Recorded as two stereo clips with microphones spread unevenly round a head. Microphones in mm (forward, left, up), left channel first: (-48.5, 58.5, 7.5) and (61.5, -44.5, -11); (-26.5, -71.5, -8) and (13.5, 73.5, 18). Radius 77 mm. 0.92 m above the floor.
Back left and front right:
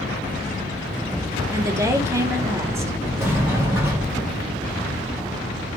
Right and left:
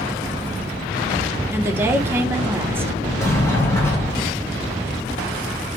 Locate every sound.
1.5 s a woman speaking: 5° right, 0.5 m
3.2 s a sliding door: 85° right, 1.0 m